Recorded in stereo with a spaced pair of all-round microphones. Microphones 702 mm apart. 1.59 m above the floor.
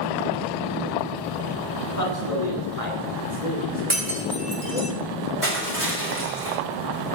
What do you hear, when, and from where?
1.8 s a man speaking: 50° left (ahead or behind), 3.5 m
3.9 s breaking glass: 70° right (ahead or behind), 3.5 m
5.4 s crushing: 15° right (ahead or behind), 4 m